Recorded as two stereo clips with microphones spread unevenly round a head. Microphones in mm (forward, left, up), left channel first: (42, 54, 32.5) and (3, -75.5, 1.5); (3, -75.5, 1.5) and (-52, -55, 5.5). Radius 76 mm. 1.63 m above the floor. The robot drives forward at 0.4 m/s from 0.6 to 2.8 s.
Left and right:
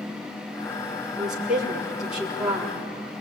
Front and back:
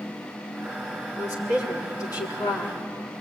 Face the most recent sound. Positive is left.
turn(degrees=-20)